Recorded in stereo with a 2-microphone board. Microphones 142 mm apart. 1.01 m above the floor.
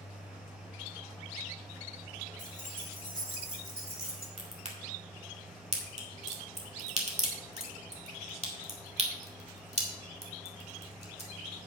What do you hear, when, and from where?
2.4 s keys jangling: 65° right (ahead or behind), 3.5 m; by 4.3 s 80° right, 2.5 m
4.4 s a crack: 45° right (ahead or behind), 2 m